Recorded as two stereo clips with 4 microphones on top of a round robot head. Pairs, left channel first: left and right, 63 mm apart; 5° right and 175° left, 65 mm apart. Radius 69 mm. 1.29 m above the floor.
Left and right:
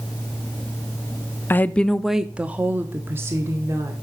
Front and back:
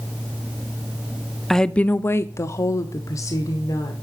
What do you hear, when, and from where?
1.5 s a woman speaking: 75° left, 0.5 m; by 3.9 s 45° right, 1.4 m